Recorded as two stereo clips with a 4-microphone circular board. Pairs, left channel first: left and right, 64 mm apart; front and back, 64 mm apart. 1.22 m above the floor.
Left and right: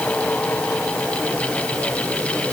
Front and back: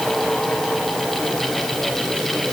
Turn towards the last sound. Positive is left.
No sound to turn to.